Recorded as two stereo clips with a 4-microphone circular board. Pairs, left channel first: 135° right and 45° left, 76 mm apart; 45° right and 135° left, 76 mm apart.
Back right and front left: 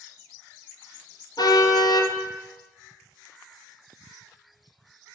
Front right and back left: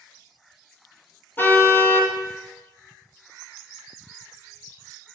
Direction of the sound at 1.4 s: 110° right.